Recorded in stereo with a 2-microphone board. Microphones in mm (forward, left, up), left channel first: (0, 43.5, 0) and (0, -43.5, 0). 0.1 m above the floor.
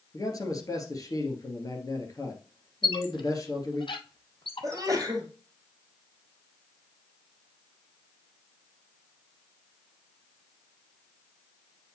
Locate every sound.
0.1 s a man speaking: 40° left (ahead or behind), 2 m
2.8 s a squeak: 65° left (ahead or behind), 0.8 m
4.6 s a sneeze: 35° right (ahead or behind), 2.5 m